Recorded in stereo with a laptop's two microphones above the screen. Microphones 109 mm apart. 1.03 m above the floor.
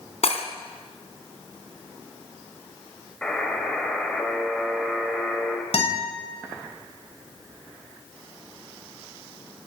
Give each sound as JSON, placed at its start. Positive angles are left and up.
{"t": 0.2, "sound": "breaking glass", "side_deg": 70, "distance_m": 3.0}
{"t": 3.2, "sound": "a buzzer", "side_deg": 10, "distance_m": 4.5}
{"t": 5.7, "sound": "a guitar", "side_deg": 75, "distance_m": 7.0}